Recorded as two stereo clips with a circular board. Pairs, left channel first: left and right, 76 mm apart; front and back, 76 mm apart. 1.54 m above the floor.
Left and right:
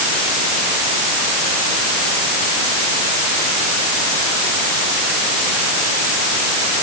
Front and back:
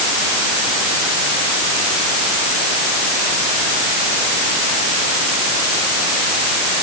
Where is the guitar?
No guitar in this recording.